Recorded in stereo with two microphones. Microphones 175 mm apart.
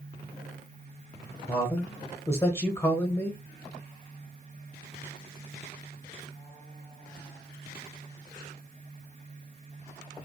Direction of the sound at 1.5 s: 15° left (ahead or behind).